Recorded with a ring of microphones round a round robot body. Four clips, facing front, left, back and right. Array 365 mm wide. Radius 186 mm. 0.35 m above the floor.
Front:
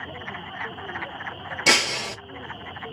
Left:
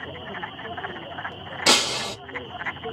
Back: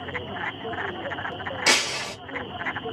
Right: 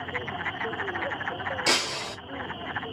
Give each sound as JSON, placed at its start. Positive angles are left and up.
{"t": 1.7, "sound": "breaking glass", "azimuth_deg": 60, "distance_m": 0.6}